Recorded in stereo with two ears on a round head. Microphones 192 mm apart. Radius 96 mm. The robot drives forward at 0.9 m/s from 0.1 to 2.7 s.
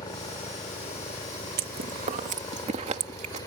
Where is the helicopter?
20° left (ahead or behind); by 3.5 s 15° left (ahead or behind).